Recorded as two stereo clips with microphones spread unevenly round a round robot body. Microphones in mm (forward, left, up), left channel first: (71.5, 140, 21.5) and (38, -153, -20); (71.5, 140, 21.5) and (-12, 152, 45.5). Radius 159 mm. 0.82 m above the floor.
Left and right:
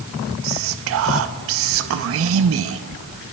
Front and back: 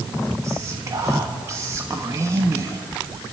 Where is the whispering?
115° right, 0.6 m.